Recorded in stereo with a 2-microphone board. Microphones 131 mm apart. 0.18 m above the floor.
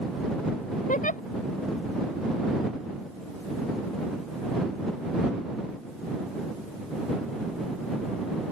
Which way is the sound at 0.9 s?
85° left.